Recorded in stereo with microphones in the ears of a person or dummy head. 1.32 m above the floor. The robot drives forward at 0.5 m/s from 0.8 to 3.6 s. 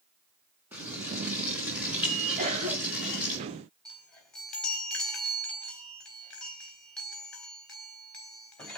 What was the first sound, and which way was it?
Frying, 5° right (ahead or behind).